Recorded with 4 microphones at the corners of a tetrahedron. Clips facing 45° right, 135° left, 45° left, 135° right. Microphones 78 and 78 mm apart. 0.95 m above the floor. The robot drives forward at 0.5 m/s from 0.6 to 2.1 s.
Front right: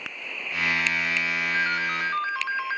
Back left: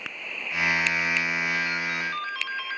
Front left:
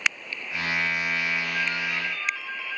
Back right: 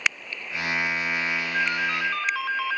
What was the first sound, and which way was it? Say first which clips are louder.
A ringtone: front right 3 dB, back right 3 dB; 85° right.